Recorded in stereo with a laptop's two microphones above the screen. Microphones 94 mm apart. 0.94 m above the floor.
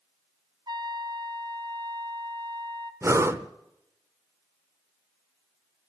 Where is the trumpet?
55° right (ahead or behind), 1.1 m.